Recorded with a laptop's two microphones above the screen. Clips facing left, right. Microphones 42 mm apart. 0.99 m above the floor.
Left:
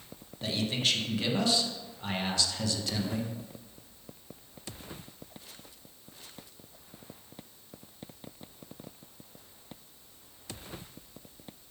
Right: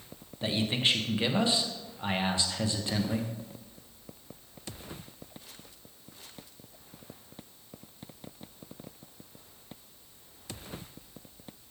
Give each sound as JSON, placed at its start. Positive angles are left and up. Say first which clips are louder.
{"t": 0.4, "sound": "a man speaking", "louder": "right 2 dB", "side_deg": -25, "distance_m": 0.7}